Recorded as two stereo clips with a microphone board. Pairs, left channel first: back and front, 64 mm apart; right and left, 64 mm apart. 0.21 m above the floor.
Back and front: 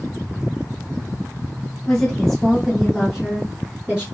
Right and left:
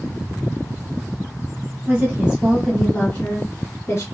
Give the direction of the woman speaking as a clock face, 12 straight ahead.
8 o'clock.